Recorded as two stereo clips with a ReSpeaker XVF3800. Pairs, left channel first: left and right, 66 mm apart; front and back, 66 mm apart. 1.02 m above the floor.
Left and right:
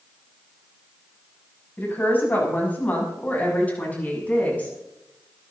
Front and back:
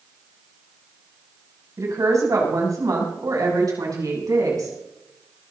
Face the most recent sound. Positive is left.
turn(degrees=160)